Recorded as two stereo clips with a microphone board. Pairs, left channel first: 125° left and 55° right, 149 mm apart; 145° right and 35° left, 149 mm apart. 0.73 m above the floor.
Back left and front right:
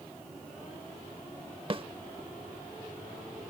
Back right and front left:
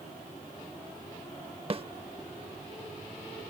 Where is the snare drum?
10° right.